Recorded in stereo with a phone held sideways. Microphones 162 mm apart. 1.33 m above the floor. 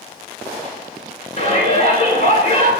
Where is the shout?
45° left (ahead or behind), 5.5 m.